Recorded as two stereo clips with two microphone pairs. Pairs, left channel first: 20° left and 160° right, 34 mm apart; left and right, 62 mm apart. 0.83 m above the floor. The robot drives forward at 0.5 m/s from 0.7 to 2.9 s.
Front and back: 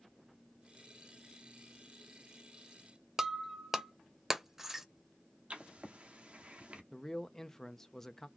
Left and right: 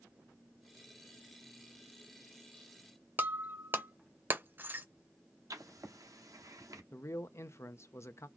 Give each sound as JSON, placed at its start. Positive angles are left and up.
{"t": 3.2, "sound": "breaking glass", "azimuth_deg": -90, "distance_m": 0.6}
{"t": 5.5, "sound": "writing", "azimuth_deg": -110, "distance_m": 1.0}
{"t": 6.9, "sound": "a man speaking", "azimuth_deg": 85, "distance_m": 0.6}